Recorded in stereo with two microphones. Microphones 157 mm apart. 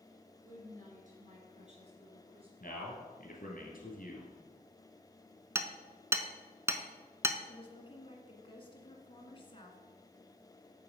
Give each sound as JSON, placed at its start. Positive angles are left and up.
{"t": 0.4, "sound": "a woman speaking", "side_deg": -60, "distance_m": 3.0}
{"t": 2.6, "sound": "a man speaking", "side_deg": 65, "distance_m": 2.5}
{"t": 5.5, "sound": "hammering", "side_deg": -20, "distance_m": 0.7}
{"t": 7.4, "sound": "a woman speaking", "side_deg": 35, "distance_m": 1.5}